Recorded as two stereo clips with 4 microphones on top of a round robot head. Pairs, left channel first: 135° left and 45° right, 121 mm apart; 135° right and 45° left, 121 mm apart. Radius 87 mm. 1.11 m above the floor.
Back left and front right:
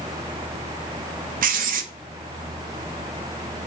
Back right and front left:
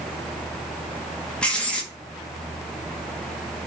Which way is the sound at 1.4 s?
50° right.